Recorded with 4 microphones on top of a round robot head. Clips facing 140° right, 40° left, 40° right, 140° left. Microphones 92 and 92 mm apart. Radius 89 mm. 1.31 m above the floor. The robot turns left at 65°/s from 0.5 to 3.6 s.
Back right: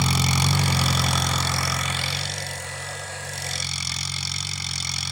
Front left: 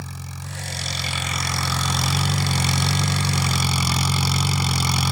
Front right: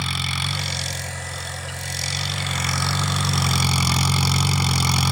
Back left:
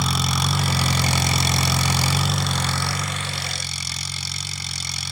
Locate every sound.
0.0 s an engine running: 160° right; by 5.1 s straight ahead